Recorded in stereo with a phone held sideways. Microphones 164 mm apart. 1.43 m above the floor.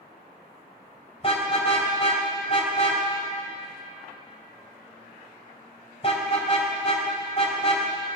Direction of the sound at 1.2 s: 40° left (ahead or behind).